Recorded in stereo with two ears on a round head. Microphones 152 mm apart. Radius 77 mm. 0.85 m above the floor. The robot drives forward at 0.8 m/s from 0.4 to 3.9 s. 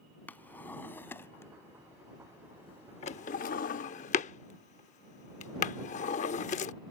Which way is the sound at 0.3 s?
10° left (ahead or behind).